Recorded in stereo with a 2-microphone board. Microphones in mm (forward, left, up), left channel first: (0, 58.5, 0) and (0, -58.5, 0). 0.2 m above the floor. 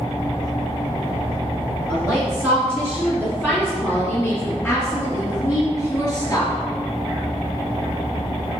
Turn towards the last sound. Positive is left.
turn(degrees=25)  # may be behind; listen again after turning